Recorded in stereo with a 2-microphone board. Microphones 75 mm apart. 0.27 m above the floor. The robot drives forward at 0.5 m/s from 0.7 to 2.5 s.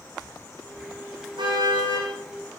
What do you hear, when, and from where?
1.4 s a car horn: 70° right (ahead or behind), 9.5 m